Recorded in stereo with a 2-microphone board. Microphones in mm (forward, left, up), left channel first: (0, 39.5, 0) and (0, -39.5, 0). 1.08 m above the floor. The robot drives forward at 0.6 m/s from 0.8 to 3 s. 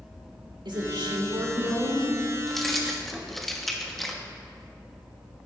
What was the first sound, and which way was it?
A woman speaking, 85° right.